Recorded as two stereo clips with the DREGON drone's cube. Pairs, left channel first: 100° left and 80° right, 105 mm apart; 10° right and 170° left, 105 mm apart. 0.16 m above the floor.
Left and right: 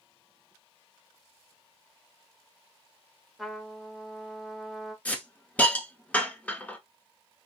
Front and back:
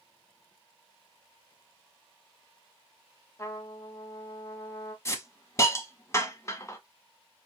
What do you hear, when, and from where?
3.4 s a trumpet: 10° left, 0.8 m
5.0 s a hiss: 35° left, 0.7 m